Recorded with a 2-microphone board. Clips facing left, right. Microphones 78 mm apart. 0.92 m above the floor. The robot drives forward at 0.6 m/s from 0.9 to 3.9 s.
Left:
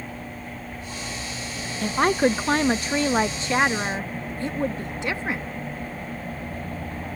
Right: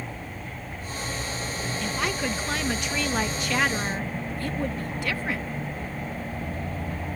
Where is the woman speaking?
40° left (ahead or behind); by 5.5 s 25° left (ahead or behind).